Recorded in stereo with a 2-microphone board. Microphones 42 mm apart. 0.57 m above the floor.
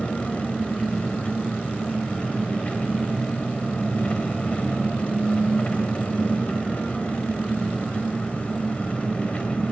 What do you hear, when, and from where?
0.0 s an engine running: 30° left (ahead or behind), 2.5 m